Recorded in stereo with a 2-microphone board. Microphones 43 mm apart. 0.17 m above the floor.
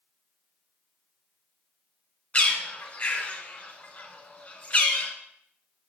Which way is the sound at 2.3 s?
30° left (ahead or behind).